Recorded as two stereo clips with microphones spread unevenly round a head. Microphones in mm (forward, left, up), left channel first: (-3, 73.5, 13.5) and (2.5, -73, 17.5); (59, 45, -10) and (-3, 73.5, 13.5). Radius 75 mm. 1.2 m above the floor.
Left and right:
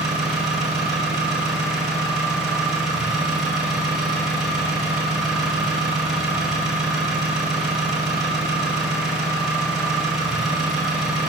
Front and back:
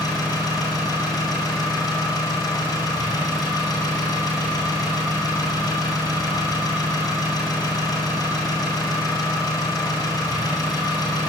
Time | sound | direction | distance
0.0 | an engine running | straight ahead | 7 m